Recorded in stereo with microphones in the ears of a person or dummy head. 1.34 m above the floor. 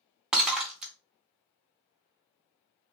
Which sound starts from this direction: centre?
Breaking glass, at 0.3 s.